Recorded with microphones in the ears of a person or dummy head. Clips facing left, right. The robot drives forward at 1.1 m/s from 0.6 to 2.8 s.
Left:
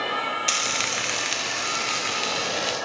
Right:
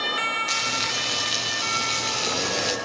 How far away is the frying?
About 1.8 m.